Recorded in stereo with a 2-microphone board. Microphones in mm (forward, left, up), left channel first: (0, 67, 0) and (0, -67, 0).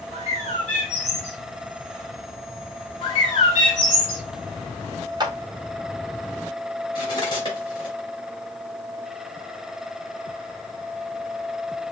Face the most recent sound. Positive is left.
turn(degrees=40)  # may be behind; listen again after turning